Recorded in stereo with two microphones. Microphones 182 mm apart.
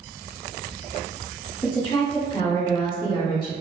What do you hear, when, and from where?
1.6 s a woman speaking: 25° left (ahead or behind), 1.5 m